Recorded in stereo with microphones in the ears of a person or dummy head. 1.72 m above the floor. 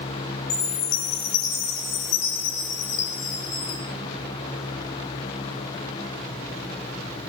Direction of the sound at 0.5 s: 65° left (ahead or behind).